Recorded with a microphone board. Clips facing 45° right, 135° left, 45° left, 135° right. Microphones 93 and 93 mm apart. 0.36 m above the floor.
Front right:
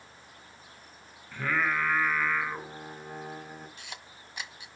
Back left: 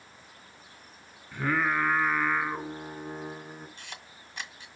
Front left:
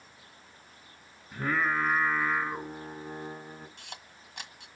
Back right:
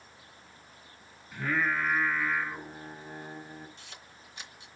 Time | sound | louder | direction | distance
1.3 | singing | back left 2 dB, front left 1 dB | 60° left | 1.5 m
3.8 | a camera shutter | even, front left 3 dB | 35° left | 1.7 m